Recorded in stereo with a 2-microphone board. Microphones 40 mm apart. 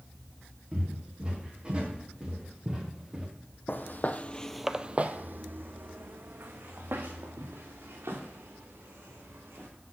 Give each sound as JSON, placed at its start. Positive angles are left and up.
{"t": 0.7, "sound": "footsteps", "side_deg": -25, "distance_m": 4.5}
{"t": 3.7, "sound": "footsteps", "side_deg": 60, "distance_m": 0.9}